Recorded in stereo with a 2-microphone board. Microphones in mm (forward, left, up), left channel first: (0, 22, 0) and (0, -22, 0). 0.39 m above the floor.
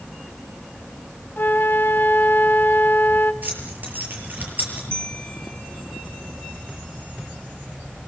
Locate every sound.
1.4 s a flute: 55° left (ahead or behind), 0.8 m
3.4 s keys jangling: 50° right (ahead or behind), 7 m
4.9 s a bell: 25° left (ahead or behind), 2.5 m